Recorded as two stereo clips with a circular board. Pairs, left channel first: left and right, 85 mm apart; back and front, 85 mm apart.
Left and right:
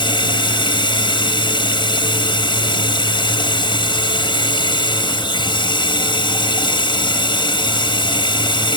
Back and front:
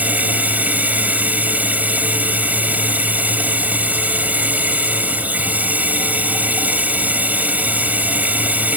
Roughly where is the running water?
Left.